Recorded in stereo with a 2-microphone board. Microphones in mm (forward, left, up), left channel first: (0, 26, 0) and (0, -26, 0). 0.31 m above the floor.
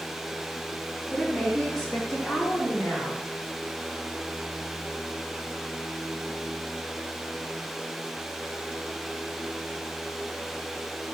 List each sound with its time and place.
1.1 s a woman speaking: centre (ahead or behind), 2.5 m; by 3.2 s 25° left (ahead or behind), 3 m